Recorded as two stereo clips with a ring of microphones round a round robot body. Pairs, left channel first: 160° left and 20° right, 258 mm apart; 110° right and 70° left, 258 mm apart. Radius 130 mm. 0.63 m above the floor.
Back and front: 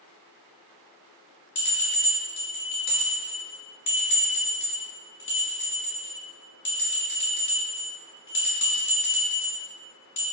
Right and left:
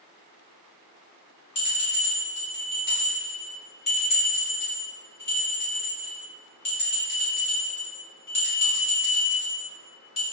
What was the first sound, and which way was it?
A bell, 175° right.